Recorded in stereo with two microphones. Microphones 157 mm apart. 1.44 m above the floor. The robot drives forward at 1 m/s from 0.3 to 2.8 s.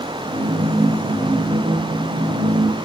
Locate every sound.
Only background noise.